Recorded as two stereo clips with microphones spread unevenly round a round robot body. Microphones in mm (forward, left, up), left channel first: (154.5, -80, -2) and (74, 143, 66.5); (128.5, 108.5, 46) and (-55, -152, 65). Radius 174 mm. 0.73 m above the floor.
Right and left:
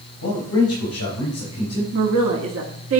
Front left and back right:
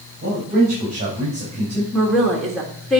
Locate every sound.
0.2 s a man speaking: 65° right, 4 m; by 1.8 s 50° right, 4.5 m
1.9 s a woman speaking: 140° left, 1.2 m